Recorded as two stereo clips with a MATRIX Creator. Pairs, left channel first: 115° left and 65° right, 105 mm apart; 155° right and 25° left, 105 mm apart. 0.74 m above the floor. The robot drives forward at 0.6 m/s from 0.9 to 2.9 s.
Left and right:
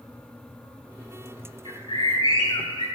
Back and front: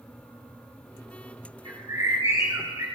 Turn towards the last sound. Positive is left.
turn(degrees=85)